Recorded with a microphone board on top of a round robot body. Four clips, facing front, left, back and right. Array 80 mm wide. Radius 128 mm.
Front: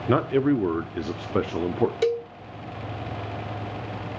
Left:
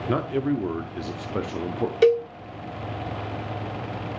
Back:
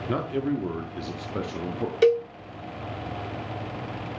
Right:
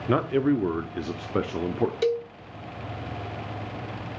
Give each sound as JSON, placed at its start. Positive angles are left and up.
{"t": 0.1, "sound": "a man speaking", "azimuth_deg": -25, "distance_m": 1.0}
{"t": 2.0, "sound": "a cowbell", "azimuth_deg": 120, "distance_m": 0.9}